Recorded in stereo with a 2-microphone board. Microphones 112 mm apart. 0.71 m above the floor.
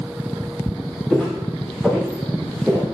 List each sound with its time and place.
1.1 s footsteps: 10° left (ahead or behind), 3 m; by 2.8 s 5° right (ahead or behind), 2 m